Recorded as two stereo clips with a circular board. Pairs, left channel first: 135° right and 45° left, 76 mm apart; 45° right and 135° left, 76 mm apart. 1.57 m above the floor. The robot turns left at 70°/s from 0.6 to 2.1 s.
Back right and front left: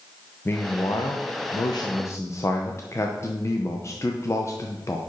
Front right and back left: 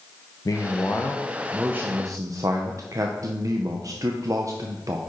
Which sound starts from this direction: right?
A man speaking, at 0.5 s.